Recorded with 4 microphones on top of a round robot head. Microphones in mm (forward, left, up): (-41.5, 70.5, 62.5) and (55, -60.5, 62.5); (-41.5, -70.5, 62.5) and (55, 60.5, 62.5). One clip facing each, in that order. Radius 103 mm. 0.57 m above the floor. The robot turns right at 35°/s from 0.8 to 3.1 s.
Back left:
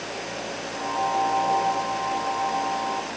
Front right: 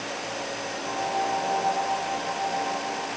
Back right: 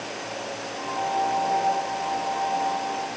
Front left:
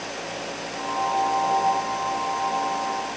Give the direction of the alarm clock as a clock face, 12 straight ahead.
I don't hear an alarm clock.